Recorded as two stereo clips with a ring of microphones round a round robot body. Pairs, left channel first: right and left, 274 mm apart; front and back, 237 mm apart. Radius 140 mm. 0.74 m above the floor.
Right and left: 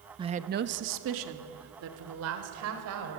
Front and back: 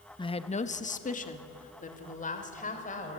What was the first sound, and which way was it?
A woman speaking, 40° left.